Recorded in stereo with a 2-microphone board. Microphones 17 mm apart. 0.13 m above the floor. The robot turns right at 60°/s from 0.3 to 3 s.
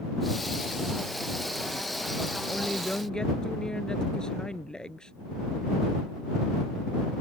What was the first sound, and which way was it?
A woman speaking, 80° left.